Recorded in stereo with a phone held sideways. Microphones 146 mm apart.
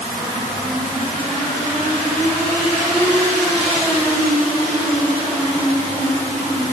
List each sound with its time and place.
Only background noise.